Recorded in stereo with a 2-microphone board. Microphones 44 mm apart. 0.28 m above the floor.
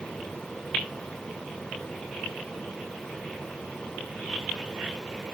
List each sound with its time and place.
Only background noise.